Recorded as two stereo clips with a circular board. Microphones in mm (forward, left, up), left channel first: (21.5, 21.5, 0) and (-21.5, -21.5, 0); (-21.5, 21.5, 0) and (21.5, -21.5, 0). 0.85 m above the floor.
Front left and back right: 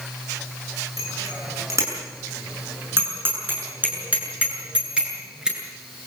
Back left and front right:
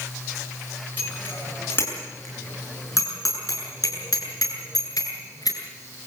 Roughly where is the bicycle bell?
Behind.